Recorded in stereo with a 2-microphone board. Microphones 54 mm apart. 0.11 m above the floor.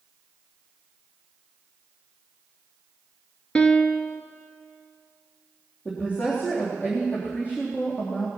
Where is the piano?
15° left (ahead or behind), 0.8 m.